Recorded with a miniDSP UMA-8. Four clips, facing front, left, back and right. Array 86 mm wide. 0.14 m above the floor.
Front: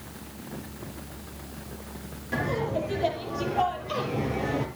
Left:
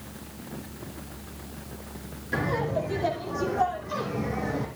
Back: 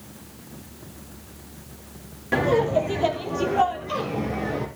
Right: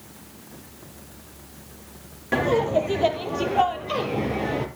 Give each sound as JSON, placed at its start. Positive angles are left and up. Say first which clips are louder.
{"t": 2.3, "sound": "laughter", "louder": "right 7 dB, back 8 dB", "azimuth_deg": -125, "distance_m": 4.5}